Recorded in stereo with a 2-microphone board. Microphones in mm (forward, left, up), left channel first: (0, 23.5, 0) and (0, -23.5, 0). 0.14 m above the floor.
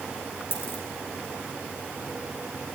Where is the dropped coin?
50° left (ahead or behind), 4.5 m.